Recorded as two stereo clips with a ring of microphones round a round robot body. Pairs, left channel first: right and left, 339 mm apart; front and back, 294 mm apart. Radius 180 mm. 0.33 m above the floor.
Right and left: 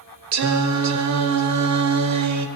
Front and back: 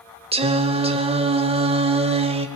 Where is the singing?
115° left, 0.9 m.